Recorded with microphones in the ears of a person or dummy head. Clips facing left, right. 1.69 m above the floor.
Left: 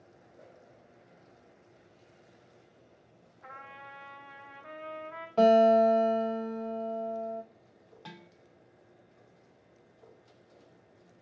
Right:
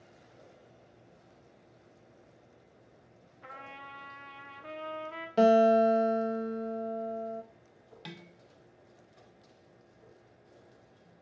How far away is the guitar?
About 1.0 m.